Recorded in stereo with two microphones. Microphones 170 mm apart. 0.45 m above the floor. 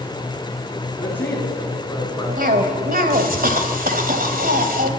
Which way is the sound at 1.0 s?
5° left (ahead or behind).